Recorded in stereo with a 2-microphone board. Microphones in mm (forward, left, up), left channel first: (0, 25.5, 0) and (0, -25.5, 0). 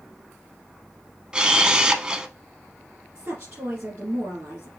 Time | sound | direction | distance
1.3 | a camera shutter | 20° right (ahead or behind) | 0.6 m
3.1 | a woman speaking | 50° right (ahead or behind) | 2 m